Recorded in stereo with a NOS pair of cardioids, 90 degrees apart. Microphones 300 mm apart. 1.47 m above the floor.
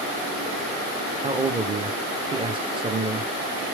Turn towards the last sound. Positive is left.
turn(degrees=-15)